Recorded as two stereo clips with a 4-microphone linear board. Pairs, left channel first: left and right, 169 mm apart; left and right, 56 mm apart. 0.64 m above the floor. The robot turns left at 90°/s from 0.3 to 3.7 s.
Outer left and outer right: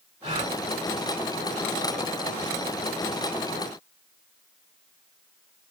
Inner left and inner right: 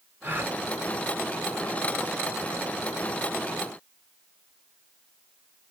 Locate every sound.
0.2 s a gasp: 45° right (ahead or behind), 3 m; by 0.6 s 20° right (ahead or behind), 3 m